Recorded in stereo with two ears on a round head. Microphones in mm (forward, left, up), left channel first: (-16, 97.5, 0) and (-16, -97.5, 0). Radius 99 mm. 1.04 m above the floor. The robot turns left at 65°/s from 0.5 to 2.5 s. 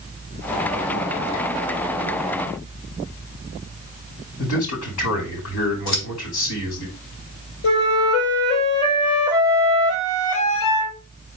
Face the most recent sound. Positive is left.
turn(degrees=75)  # may be behind; listen again after turning